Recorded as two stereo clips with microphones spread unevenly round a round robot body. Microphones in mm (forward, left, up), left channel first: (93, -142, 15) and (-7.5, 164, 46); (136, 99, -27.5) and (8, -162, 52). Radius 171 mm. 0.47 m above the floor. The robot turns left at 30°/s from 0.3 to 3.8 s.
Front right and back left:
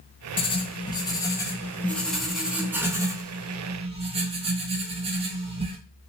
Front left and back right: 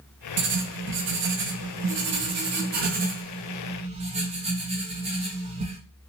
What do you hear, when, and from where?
0.4 s writing: 90° right, 0.6 m; by 5.8 s 165° left, 0.6 m